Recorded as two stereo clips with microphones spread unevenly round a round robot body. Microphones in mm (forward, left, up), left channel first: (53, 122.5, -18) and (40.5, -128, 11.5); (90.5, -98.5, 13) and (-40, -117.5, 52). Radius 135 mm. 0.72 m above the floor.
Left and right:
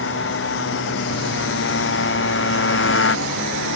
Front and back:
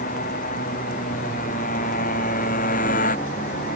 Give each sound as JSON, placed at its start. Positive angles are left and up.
{"t": 0.0, "sound": "a motorcycle", "azimuth_deg": 45}